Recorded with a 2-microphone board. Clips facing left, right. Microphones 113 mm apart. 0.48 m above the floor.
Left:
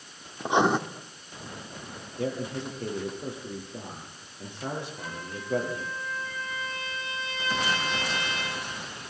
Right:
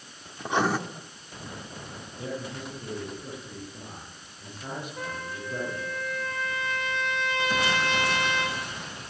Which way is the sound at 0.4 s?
20° left (ahead or behind).